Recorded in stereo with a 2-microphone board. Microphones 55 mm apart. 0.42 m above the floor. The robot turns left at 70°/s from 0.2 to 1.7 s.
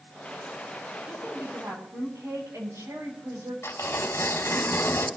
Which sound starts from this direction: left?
Tearing paper, at 3.6 s.